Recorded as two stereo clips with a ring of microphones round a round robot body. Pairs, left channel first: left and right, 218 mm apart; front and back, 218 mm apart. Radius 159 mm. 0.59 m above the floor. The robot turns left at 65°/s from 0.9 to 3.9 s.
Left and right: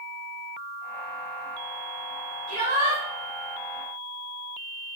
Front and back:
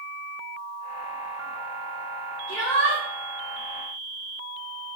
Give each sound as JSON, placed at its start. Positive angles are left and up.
{"t": 2.5, "sound": "a shout", "azimuth_deg": -35, "distance_m": 3.5}